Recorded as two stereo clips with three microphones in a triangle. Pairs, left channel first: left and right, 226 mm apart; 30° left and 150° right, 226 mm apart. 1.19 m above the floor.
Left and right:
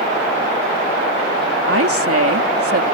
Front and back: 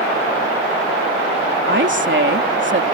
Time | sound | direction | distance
1.7 | a woman speaking | 110° right | ?